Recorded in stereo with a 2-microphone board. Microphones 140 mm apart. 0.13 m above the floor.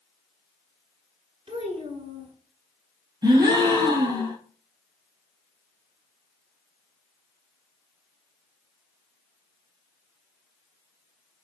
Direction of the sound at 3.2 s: 30° right (ahead or behind).